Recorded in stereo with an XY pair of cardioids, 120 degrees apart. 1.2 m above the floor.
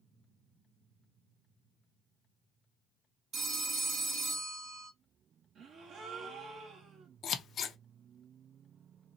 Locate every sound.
3.3 s a phone ringing: 45° right, 1.1 m
5.5 s a gasp: 55° right, 1.1 m
7.2 s scissors: 50° left, 0.7 m